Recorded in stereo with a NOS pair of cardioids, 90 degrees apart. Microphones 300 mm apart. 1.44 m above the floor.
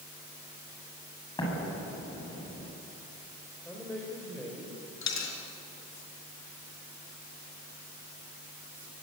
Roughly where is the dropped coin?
Ahead left.